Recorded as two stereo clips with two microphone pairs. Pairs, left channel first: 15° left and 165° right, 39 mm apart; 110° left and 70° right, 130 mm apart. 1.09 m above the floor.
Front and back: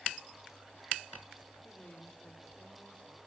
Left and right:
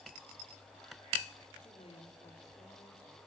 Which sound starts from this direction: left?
A woman speaking, at 1.6 s.